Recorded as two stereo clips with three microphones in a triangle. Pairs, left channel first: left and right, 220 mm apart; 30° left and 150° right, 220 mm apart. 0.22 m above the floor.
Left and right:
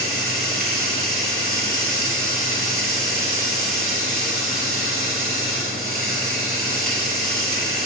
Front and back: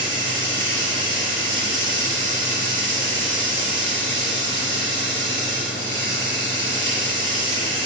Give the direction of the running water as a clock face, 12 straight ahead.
12 o'clock.